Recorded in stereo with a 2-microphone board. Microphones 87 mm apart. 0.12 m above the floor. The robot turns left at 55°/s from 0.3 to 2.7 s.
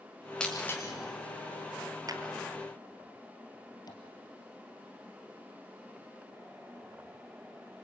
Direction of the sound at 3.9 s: 50° left (ahead or behind).